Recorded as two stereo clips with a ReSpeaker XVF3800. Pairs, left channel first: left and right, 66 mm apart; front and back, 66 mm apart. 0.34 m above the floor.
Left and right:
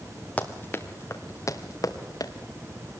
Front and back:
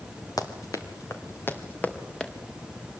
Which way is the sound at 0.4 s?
20° left.